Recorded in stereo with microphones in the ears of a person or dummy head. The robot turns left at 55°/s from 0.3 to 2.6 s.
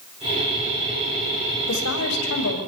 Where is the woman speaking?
120° left, 7.5 m; by 2.6 s 70° left, 7.5 m.